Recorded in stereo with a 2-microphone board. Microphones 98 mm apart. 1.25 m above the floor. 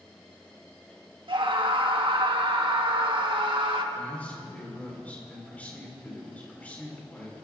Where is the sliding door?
I don't hear a sliding door.